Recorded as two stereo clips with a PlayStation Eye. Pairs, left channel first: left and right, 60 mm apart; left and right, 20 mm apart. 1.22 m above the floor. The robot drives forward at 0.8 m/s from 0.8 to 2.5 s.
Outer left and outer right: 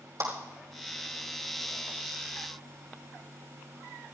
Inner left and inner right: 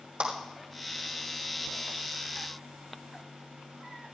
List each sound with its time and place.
0.2 s a clap: 75° right (ahead or behind), 5 m